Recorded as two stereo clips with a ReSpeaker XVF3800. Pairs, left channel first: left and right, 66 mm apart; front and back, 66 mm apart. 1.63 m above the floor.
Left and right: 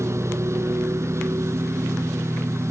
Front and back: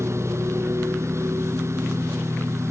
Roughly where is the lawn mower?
Behind right.